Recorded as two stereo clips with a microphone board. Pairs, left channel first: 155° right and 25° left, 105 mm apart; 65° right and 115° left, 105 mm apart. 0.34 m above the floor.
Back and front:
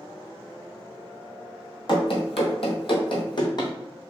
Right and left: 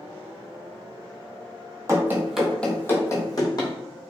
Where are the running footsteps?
170° left, 0.6 m; by 3.7 s 110° right, 1.1 m.